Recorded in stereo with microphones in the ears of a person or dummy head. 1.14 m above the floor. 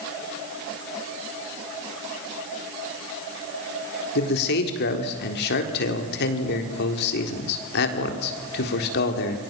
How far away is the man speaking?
About 3.5 m.